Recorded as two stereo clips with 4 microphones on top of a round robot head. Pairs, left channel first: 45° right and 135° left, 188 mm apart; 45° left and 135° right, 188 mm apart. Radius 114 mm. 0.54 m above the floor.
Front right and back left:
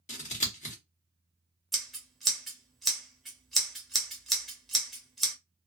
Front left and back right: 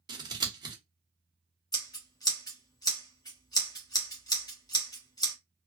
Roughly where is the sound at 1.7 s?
Ahead left.